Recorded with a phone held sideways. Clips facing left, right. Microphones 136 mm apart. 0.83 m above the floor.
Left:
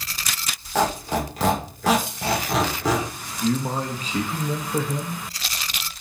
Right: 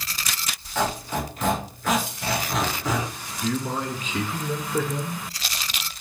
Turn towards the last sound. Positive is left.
turn(degrees=35)  # may be behind; listen again after turning